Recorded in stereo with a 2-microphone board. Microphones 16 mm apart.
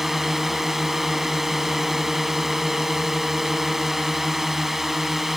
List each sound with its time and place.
0.0 s a drone: 25° right (ahead or behind)